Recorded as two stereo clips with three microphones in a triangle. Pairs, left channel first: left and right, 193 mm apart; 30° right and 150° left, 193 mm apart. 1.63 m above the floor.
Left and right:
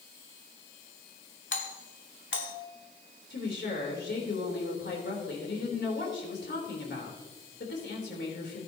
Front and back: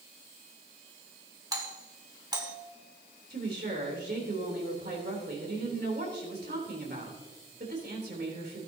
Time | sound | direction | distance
1.5 | a doorbell | 80° left | 1.5 m
3.3 | a woman speaking | 115° left | 3 m